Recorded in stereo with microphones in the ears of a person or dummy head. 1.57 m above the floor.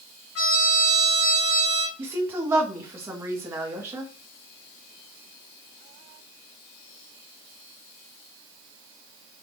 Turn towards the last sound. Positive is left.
turn(degrees=-15)  # may be behind; listen again after turning